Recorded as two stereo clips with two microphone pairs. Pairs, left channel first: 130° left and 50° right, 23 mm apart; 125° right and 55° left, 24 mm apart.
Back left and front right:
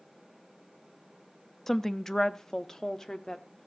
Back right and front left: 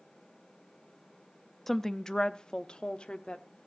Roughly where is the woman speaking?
Behind.